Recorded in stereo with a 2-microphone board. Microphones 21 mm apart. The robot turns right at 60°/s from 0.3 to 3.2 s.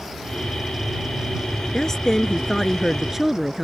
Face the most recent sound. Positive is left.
turn(degrees=-15)  # may be behind; listen again after turning